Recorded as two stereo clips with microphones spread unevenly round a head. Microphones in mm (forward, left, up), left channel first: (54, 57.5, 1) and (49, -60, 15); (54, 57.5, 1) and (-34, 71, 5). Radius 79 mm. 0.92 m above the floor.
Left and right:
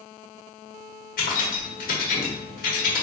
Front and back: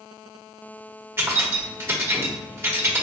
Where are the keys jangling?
110° left, 1.2 m.